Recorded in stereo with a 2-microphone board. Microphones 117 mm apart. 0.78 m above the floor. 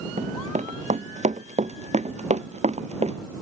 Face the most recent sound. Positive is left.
turn(degrees=-65)  # may be behind; listen again after turning